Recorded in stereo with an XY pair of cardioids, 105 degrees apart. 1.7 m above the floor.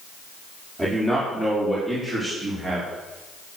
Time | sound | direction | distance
0.8 | a man speaking | 25° right | 5 m